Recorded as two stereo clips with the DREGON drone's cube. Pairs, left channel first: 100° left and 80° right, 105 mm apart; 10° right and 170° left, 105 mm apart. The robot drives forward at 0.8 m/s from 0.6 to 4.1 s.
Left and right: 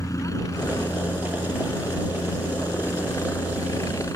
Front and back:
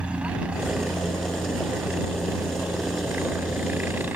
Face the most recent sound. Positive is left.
turn(degrees=110)